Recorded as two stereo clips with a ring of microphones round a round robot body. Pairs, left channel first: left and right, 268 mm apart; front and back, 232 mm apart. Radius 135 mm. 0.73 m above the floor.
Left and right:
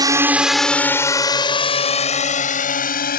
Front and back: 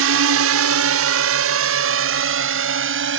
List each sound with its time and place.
0.0 s a drone: 165° right; by 3.2 s 150° left